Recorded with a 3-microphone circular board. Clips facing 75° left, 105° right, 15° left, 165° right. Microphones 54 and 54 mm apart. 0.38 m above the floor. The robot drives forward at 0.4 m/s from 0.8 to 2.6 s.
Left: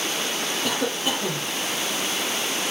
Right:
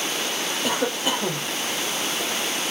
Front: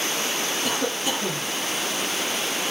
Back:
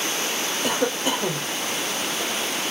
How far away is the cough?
About 1.0 m.